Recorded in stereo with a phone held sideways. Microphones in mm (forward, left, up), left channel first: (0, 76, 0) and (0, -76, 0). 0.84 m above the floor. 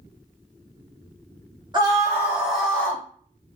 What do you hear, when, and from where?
1.7 s a scream: 25° right (ahead or behind), 1.2 m; by 3.0 s 15° left (ahead or behind), 1.2 m